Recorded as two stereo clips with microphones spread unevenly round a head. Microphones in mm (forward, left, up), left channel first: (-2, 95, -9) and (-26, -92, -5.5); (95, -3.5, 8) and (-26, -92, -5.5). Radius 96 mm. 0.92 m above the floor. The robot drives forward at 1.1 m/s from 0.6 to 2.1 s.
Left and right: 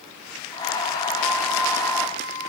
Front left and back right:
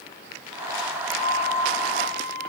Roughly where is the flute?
Ahead.